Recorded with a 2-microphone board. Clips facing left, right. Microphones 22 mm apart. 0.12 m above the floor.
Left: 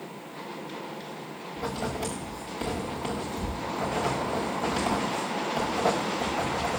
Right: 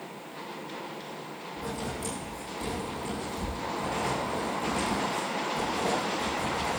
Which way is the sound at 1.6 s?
40° left (ahead or behind).